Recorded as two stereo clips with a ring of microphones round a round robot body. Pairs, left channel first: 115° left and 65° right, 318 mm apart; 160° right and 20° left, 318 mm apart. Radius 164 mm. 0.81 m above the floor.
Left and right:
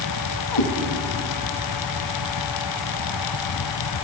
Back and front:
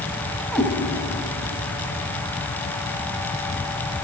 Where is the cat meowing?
115° left, 2 m.